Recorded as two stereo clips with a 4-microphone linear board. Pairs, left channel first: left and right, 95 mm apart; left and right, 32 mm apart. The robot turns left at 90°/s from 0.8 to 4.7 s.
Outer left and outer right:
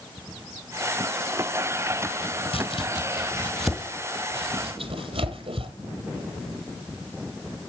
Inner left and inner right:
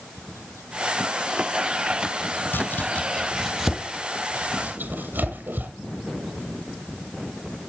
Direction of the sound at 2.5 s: 75° left (ahead or behind).